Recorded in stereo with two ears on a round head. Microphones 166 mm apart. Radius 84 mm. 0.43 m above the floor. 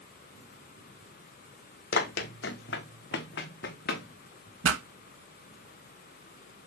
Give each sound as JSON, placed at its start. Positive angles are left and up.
{"t": 1.9, "sound": "running footsteps", "side_deg": 55, "distance_m": 0.9}
{"t": 4.6, "sound": "a pop", "side_deg": -75, "distance_m": 0.8}